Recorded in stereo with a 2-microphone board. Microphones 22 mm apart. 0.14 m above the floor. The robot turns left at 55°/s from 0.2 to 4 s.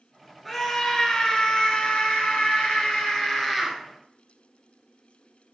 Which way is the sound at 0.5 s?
175° right.